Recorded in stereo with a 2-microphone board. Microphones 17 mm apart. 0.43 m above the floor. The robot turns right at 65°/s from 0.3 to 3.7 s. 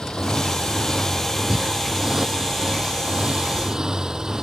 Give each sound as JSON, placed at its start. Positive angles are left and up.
{"t": 0.0, "sound": "a motorcycle", "azimuth_deg": 90}
{"t": 1.5, "sound": "breathing", "side_deg": -75}